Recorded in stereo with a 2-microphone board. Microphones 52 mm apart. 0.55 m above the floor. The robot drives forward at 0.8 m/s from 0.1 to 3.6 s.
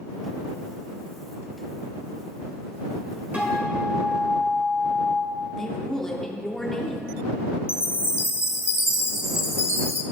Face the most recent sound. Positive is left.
turn(degrees=60)  # may be behind; listen again after turning